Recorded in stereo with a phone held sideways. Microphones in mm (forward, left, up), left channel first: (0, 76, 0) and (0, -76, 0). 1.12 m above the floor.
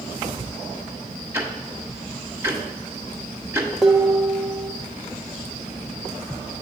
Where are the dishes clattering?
Centre (ahead or behind), 0.8 m.